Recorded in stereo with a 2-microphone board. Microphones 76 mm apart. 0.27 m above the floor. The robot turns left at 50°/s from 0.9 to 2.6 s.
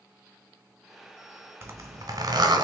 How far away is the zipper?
About 0.9 m.